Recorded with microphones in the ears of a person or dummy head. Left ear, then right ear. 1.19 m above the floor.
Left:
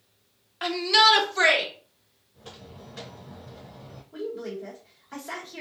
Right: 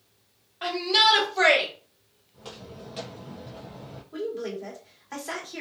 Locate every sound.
0.6 s a shout: 55° left (ahead or behind), 0.9 m; by 1.7 s 40° left (ahead or behind), 1.2 m
2.3 s footsteps: 30° right (ahead or behind), 1.5 m; by 4.0 s 25° right (ahead or behind), 1.3 m
4.1 s a woman speaking: 30° right (ahead or behind), 1.3 m